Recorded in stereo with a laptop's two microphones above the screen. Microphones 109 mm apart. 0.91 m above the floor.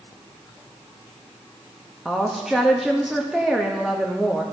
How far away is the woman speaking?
About 0.8 m.